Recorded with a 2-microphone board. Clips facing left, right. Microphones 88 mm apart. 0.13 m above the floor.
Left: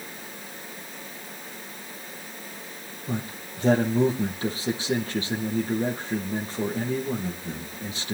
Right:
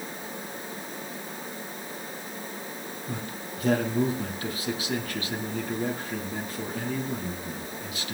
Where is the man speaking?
30° left (ahead or behind), 3.5 m.